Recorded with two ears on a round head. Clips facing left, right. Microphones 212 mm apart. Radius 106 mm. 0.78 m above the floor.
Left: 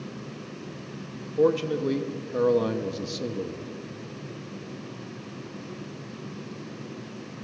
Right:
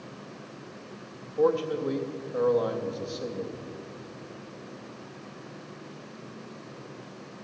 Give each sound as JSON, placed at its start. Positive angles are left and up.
{"t": 1.4, "sound": "a man speaking", "side_deg": 35, "distance_m": 0.6}